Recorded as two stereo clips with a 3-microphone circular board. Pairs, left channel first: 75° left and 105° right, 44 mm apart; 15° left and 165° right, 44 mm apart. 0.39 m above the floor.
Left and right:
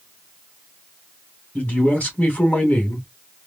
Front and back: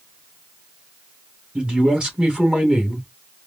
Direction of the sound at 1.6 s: 130° left.